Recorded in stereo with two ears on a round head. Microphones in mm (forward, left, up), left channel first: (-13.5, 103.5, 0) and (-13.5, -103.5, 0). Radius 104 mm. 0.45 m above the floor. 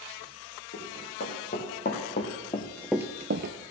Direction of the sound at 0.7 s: 40° left (ahead or behind).